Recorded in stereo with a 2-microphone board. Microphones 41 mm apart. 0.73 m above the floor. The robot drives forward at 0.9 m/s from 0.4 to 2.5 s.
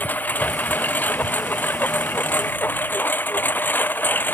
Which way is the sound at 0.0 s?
45° left (ahead or behind).